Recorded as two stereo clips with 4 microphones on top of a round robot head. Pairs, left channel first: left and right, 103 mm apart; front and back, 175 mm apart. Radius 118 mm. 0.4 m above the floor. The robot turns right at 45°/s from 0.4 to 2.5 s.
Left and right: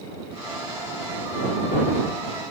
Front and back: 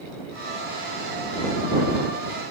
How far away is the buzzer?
I don't hear a buzzer.